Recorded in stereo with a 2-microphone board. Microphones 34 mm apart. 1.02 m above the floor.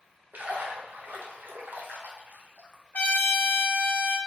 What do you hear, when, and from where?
0.3 s a splash: 70° right (ahead or behind), 0.5 m
2.9 s a trumpet: 75° left (ahead or behind), 1.1 m